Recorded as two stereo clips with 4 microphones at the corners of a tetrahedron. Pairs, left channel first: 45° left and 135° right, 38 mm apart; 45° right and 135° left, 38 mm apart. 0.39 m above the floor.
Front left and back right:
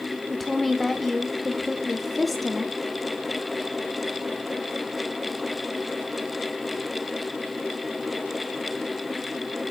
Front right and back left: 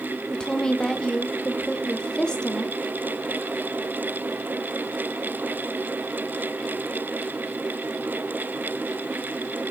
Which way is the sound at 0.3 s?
40° right.